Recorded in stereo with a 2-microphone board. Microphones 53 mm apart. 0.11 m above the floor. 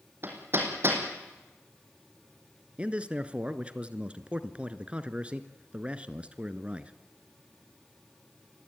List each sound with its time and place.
0.2 s hammering: 45° right (ahead or behind), 5 m
2.8 s a man speaking: 20° right (ahead or behind), 1.3 m